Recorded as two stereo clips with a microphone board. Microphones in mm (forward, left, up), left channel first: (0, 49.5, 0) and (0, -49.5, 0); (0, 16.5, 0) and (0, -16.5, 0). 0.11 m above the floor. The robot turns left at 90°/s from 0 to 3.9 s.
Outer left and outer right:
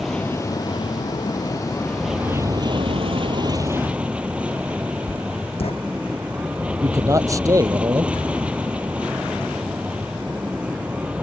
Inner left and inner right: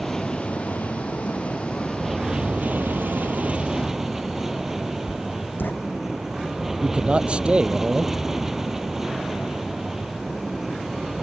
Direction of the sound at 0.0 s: 175° right.